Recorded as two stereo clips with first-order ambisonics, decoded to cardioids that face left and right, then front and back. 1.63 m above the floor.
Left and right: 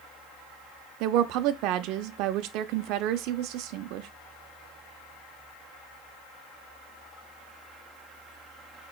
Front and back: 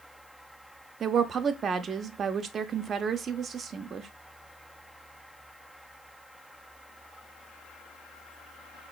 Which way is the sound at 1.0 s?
115° right.